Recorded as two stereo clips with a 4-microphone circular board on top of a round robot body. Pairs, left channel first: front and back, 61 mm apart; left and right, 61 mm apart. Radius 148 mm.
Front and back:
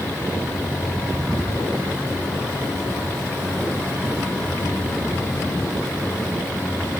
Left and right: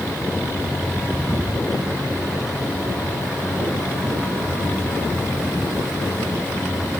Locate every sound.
Only background noise.